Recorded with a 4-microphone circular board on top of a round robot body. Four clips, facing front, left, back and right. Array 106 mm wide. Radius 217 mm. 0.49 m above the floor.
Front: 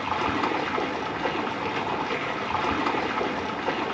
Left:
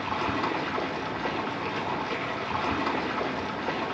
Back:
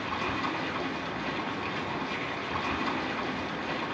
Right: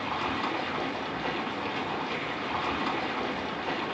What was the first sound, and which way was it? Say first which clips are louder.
Running water: left 2 dB, front 6 dB; 10° left.